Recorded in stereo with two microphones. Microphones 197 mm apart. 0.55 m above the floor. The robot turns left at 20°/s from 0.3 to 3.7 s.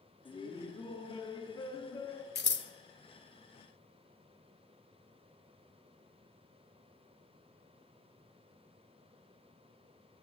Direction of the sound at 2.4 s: 55° left (ahead or behind).